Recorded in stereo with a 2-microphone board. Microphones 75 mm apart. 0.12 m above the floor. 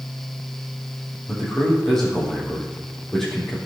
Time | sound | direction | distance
1.3 | a man speaking | 5° left (ahead or behind) | 4 m